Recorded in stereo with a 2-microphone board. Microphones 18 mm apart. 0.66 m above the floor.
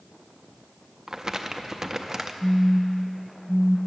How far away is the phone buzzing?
About 0.5 m.